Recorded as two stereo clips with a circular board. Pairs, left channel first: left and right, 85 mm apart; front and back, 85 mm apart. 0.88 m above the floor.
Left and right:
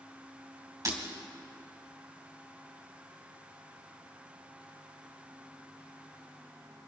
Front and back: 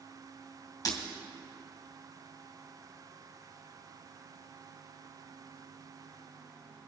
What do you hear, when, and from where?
0.8 s breaking glass: 45° right, 2 m